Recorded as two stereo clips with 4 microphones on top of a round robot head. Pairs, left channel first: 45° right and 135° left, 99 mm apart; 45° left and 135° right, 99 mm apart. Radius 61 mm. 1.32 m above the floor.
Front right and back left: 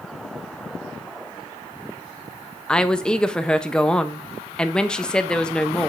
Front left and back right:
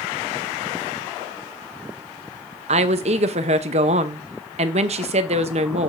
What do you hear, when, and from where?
2.7 s a woman speaking: 125° right, 0.8 m